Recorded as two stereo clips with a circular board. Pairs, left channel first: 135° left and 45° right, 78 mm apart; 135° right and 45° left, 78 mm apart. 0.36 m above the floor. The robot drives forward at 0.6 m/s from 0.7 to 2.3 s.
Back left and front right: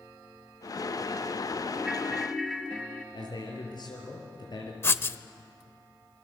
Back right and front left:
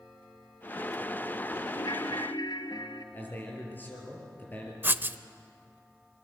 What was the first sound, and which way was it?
A ringtone, 120° right.